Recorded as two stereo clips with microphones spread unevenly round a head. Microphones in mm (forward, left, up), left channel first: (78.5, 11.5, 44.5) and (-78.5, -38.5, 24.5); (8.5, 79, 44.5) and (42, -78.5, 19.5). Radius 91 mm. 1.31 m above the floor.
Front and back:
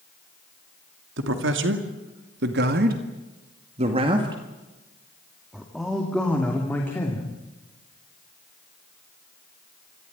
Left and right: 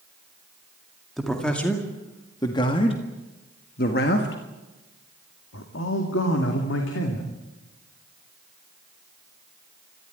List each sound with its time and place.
1.2 s a man speaking: 170° right, 2.5 m; by 7.3 s 95° left, 3 m